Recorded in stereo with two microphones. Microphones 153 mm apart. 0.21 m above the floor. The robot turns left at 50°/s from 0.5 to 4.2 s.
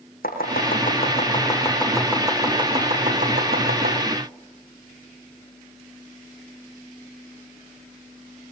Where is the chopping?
75° left (ahead or behind), 7 m; by 4.0 s 80° right, 7 m.